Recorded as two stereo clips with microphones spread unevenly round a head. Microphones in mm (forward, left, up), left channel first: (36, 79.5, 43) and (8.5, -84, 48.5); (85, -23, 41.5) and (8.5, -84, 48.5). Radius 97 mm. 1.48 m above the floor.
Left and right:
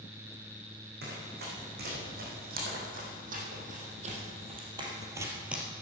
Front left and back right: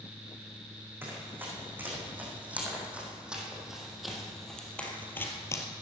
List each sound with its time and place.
1.0 s running footsteps: 75° right, 6.5 m; by 5.7 s 15° right, 2 m